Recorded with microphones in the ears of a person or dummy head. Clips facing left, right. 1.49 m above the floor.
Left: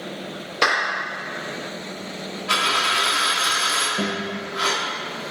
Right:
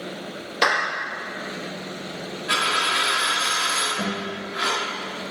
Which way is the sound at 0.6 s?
Centre (ahead or behind).